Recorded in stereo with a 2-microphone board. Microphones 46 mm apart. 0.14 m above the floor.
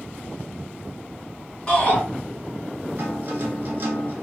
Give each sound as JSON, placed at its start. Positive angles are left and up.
{"t": 1.7, "sound": "a shout", "side_deg": 15, "distance_m": 1.7}
{"t": 3.0, "sound": "a guitar", "side_deg": -45, "distance_m": 0.8}